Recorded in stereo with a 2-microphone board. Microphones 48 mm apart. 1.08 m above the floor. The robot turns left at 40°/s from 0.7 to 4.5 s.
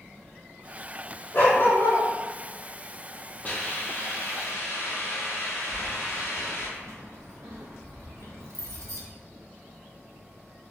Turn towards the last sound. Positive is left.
turn(degrees=-80)